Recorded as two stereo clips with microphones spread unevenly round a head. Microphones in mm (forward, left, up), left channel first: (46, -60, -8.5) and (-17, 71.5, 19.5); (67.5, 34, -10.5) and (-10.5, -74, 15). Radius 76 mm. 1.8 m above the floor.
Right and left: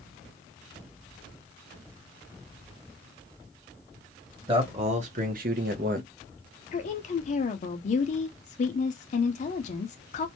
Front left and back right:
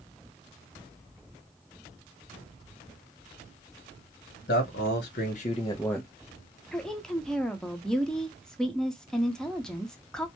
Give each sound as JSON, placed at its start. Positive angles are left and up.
{"t": 4.5, "sound": "a man speaking", "azimuth_deg": 65, "distance_m": 1.1}
{"t": 6.7, "sound": "a woman speaking", "azimuth_deg": -45, "distance_m": 0.6}